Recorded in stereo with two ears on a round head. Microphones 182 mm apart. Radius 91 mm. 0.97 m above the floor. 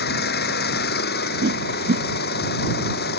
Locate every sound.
0.0 s an engine running: 50° left (ahead or behind)
1.4 s a whoosh: 50° right (ahead or behind)